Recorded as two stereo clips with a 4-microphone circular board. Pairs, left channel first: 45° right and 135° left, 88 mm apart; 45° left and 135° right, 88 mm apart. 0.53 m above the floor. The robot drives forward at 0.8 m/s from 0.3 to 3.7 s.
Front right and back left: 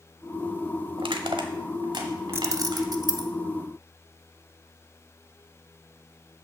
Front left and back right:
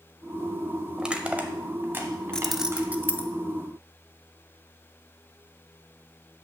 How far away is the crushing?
About 0.9 m.